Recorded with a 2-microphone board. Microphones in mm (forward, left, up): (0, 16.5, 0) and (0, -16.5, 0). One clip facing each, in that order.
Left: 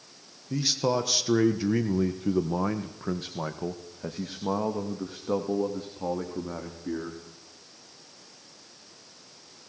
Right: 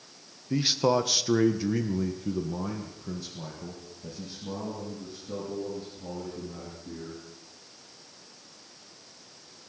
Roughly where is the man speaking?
Right.